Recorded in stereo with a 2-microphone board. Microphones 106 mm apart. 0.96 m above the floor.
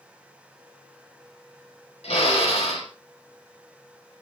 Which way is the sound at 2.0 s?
80° left.